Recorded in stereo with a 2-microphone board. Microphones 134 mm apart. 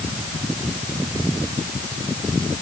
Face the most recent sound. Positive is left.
No sound to turn to.